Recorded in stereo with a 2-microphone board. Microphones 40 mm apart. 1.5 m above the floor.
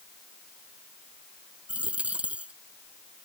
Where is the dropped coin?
30° right (ahead or behind).